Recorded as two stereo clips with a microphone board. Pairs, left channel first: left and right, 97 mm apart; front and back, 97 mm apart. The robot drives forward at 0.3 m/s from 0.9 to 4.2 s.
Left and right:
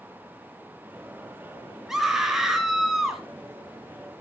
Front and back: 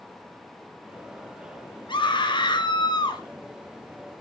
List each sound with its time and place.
1.9 s a scream: 5° right, 2.5 m